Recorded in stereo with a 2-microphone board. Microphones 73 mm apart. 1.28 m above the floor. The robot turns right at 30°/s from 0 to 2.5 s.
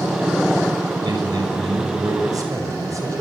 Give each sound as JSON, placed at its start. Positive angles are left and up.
{"t": 1.0, "sound": "a man speaking", "azimuth_deg": -90, "distance_m": 6.0}